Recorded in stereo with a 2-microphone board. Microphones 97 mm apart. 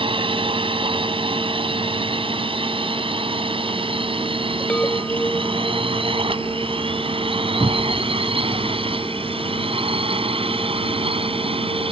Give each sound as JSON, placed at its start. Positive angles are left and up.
{"t": 0.0, "sound": "a drone", "side_deg": -60}
{"t": 4.7, "sound": "a chime", "side_deg": 15}
{"t": 7.6, "sound": "a cupboard door", "side_deg": 25}